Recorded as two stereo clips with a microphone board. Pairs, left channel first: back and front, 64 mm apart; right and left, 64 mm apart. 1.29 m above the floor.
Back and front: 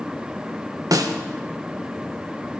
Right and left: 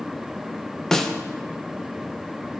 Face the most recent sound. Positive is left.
turn(degrees=-5)